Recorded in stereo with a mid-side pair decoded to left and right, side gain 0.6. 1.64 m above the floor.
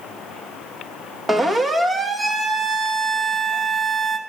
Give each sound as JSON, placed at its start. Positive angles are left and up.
{"t": 1.3, "sound": "a siren", "azimuth_deg": -20, "distance_m": 2.0}